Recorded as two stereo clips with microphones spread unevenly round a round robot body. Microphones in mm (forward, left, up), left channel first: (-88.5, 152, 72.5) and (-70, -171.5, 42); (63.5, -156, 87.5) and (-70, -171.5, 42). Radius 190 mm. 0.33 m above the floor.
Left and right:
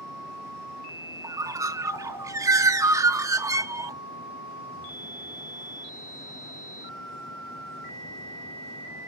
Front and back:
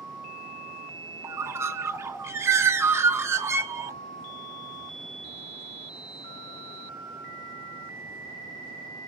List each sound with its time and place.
1.2 s a bird: 155° right, 0.8 m